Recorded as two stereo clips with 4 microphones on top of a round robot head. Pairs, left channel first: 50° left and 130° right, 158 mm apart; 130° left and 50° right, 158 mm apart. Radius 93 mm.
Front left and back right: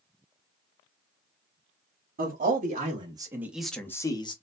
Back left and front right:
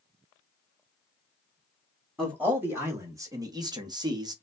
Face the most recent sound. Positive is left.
turn(degrees=5)